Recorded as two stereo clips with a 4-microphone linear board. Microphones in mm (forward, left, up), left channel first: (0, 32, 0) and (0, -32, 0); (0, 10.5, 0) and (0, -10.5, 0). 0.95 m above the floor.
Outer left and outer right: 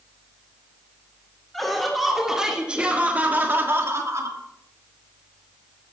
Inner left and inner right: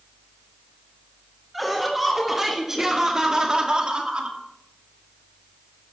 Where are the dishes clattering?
No dishes clattering in this recording.